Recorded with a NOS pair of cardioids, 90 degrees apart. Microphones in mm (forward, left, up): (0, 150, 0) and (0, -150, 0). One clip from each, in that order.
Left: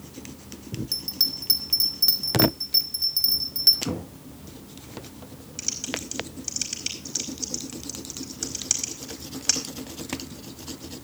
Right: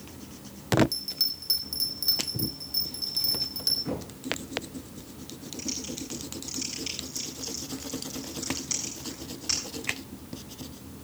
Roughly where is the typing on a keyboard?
Ahead left.